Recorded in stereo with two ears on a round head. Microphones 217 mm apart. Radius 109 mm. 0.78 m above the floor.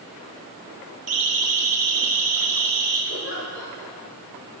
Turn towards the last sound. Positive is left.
turn(degrees=50)  # may be behind; listen again after turning